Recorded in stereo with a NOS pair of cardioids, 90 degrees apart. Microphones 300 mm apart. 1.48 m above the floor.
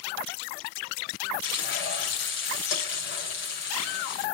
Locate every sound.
1.4 s frying: 40° left, 7 m